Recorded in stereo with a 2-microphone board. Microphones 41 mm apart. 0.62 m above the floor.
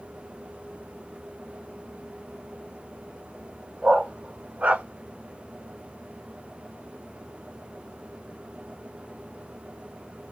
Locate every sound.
3.8 s a dog barking: 30° right (ahead or behind), 1.1 m; by 4.8 s 45° right (ahead or behind), 0.6 m